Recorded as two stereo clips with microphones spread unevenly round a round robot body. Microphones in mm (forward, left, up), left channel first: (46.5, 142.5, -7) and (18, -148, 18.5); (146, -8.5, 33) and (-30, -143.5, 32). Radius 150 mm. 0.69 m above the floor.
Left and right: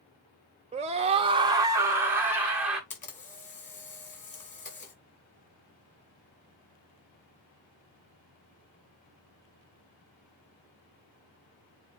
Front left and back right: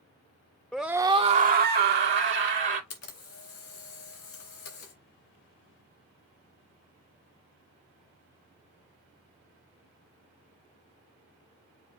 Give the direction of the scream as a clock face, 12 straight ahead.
1 o'clock.